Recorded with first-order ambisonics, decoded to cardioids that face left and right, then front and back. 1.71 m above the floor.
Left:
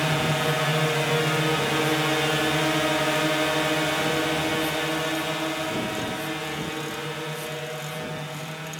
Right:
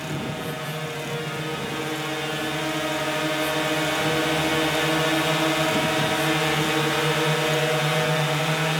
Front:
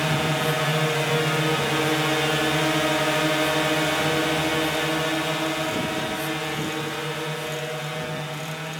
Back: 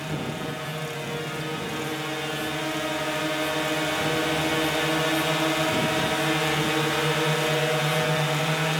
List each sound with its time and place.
0.0 s a drone: 40° left; by 8.8 s 125° right